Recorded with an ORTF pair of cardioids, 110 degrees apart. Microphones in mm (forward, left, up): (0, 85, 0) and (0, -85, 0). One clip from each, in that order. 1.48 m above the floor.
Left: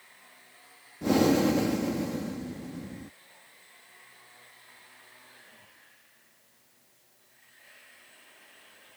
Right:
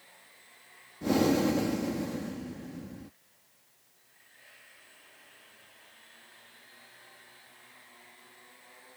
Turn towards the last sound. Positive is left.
turn(degrees=10)